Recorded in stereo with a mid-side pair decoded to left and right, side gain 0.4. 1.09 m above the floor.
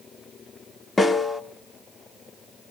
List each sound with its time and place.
1.0 s a snare drum: 30° left, 1.5 m